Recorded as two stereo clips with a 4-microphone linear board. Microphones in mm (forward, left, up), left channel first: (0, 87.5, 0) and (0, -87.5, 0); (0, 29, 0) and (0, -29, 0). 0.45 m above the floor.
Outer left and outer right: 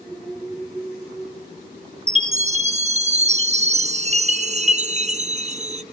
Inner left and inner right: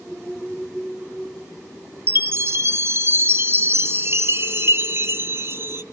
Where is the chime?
40° right (ahead or behind), 0.5 m.